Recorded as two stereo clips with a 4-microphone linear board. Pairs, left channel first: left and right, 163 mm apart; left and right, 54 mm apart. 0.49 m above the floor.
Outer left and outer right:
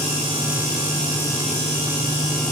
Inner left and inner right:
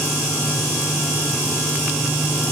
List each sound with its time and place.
Only background noise.